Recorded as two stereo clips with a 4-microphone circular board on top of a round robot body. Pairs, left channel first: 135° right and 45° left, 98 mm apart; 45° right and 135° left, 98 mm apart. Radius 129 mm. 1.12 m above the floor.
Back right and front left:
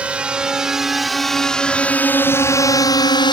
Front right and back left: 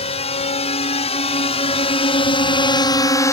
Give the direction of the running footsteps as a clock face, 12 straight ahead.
I don't hear running footsteps.